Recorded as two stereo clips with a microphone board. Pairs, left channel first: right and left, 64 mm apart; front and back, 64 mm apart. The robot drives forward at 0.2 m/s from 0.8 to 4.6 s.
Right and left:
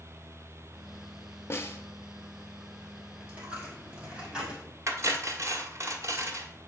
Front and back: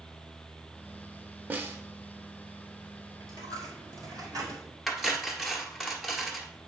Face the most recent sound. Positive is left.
turn(degrees=90)